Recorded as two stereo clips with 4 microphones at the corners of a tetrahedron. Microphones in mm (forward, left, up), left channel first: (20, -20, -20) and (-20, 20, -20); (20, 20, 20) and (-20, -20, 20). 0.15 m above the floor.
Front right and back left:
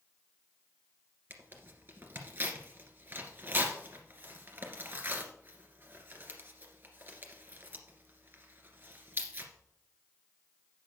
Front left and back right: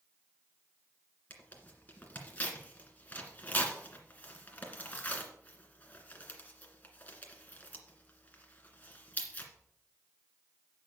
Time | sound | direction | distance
1.3 | tearing paper | 100° left | 2 m